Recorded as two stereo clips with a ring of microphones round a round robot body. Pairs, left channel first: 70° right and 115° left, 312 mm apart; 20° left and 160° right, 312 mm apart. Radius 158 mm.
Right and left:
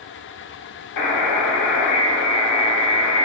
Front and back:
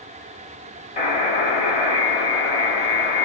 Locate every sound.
1.0 s a buzzer: 45° right, 0.9 m